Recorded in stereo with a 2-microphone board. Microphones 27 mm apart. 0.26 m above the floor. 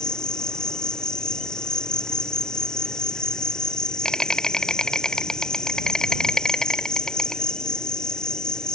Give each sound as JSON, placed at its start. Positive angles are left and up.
{"t": 0.0, "sound": "an insect", "side_deg": 25}